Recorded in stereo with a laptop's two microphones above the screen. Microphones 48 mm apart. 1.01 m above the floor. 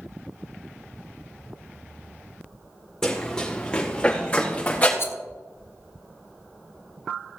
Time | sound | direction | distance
3.0 | running footsteps | 15° left (ahead or behind) | 4.5 m
5.0 | a rattle | 50° left (ahead or behind) | 0.7 m